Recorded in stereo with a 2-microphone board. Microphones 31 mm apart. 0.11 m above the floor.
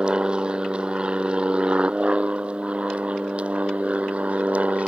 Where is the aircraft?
30° right (ahead or behind); by 4.9 s 45° right (ahead or behind).